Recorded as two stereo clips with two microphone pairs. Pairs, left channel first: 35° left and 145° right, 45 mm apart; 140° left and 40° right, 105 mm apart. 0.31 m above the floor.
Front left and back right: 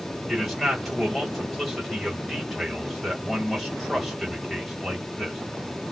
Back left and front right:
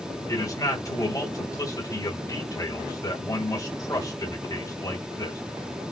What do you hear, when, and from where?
0.3 s a man speaking: 125° left, 1.8 m